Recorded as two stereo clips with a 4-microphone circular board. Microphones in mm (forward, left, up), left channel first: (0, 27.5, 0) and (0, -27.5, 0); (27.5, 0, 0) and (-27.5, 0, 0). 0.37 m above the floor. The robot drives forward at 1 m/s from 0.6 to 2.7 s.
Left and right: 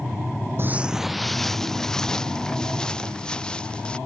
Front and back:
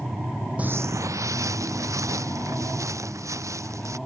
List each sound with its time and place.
0.6 s footsteps: 120° right; by 4.0 s 165° left